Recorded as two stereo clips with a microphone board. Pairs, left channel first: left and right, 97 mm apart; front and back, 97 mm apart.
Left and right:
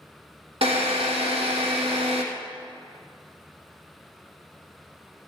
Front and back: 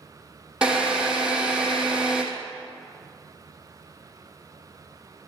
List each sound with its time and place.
0.6 s a drill: 95° right, 3 m